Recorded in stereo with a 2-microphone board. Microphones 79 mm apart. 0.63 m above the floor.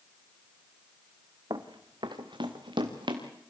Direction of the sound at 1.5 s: 60° right (ahead or behind).